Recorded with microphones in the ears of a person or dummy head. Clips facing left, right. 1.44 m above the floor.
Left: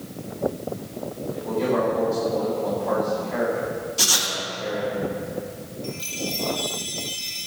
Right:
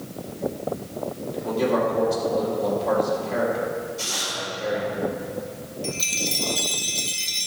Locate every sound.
1.3 s a man speaking: 45° right (ahead or behind), 3.5 m
4.0 s writing: 85° left, 1.7 m
5.8 s a chime: 25° right (ahead or behind), 0.7 m